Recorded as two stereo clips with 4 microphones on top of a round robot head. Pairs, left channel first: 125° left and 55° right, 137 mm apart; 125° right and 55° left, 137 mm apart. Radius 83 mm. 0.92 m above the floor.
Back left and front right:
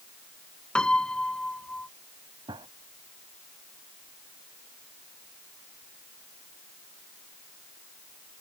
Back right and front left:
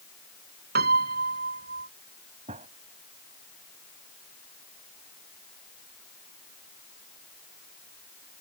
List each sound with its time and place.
0.8 s a piano: 40° left
2.5 s a gunshot: 5° left